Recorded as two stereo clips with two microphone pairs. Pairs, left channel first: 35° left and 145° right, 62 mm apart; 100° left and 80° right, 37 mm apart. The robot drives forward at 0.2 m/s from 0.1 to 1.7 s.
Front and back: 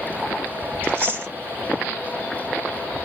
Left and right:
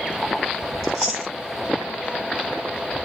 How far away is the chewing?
About 1.9 m.